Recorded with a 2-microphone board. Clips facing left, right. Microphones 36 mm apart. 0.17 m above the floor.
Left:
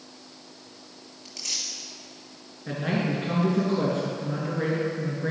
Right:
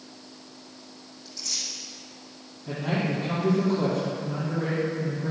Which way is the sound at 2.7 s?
50° left (ahead or behind).